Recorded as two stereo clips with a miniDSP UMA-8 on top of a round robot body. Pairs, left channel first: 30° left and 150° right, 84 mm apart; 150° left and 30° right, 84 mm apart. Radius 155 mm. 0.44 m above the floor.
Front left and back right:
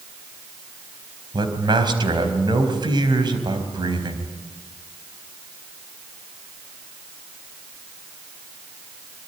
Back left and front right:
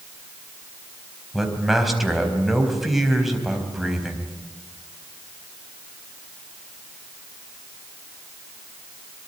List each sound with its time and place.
1.3 s a man speaking: 120° right, 4 m